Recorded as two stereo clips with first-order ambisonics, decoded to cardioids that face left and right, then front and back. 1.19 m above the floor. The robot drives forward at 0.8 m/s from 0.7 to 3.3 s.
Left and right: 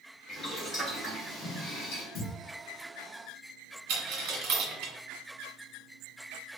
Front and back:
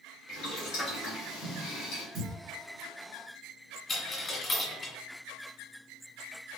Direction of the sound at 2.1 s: 155° left.